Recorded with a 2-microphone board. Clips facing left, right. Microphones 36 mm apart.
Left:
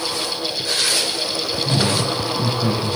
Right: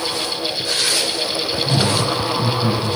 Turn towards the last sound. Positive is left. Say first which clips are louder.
# right 1 dB
turn(degrees=35)  # may be behind; listen again after turning